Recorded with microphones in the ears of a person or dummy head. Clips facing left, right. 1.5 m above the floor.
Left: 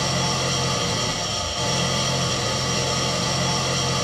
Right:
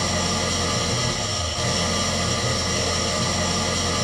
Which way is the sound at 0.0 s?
40° right (ahead or behind).